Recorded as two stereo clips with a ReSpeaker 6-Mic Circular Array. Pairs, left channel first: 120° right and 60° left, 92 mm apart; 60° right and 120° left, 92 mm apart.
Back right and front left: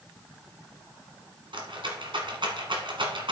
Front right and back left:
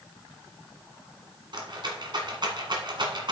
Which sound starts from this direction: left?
A rattle, at 1.5 s.